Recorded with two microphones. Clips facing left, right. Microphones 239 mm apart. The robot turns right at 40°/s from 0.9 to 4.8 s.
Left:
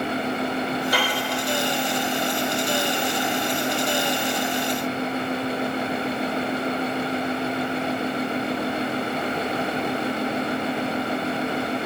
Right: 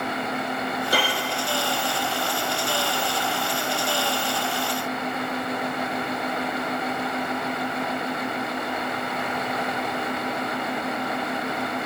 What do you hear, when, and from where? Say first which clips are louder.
0.9 s a piano: even; 40° right (ahead or behind), 1.7 m; by 1.2 s 25° right (ahead or behind), 1.7 m